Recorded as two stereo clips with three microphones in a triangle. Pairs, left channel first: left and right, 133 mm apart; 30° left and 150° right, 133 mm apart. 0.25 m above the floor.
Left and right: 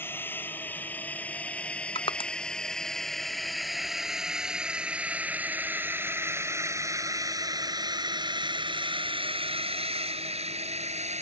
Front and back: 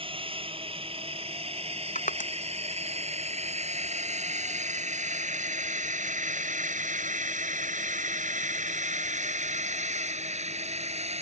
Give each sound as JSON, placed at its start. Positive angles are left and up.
{"t": 0.0, "sound": "a drone", "azimuth_deg": 165}
{"t": 1.9, "sound": "crushing", "azimuth_deg": 40}